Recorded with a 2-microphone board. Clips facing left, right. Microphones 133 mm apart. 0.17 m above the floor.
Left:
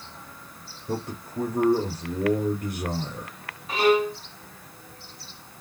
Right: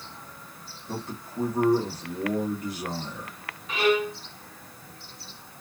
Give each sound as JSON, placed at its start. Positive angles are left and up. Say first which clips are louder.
{"t": 0.9, "sound": "a man speaking", "louder": "left 4 dB", "side_deg": 60, "distance_m": 2.0}
{"t": 3.7, "sound": "a violin", "louder": "left 3 dB", "side_deg": 35, "distance_m": 1.0}